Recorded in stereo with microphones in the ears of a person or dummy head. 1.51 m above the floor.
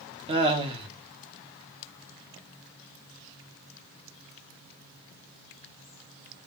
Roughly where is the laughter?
Right.